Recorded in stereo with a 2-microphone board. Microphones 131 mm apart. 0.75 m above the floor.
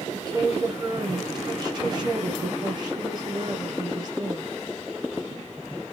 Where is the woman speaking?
35° right (ahead or behind), 0.7 m.